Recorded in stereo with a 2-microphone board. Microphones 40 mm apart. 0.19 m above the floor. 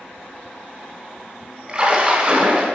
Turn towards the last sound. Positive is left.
turn(degrees=-20)  # may be behind; listen again after turning